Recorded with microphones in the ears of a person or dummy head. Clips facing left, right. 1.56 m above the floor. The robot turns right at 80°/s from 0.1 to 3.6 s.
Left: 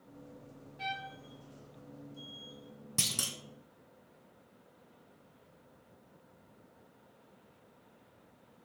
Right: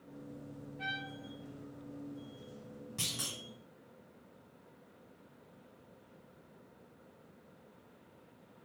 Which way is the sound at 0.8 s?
75° left.